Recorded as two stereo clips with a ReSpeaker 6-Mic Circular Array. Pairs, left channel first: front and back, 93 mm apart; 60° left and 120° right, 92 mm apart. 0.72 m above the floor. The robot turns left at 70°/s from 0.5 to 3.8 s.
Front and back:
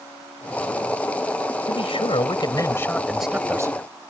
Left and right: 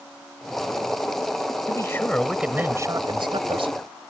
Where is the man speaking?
15° left; by 3.8 s 130° right.